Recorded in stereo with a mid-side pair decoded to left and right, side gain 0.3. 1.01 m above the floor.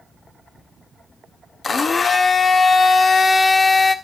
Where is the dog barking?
I don't hear a dog barking.